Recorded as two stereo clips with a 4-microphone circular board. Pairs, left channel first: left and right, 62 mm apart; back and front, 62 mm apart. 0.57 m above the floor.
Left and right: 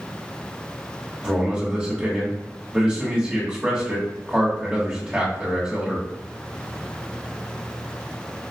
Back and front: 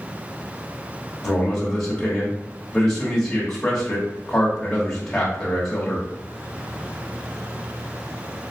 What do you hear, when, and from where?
1.2 s a man speaking: 130° right, 0.9 m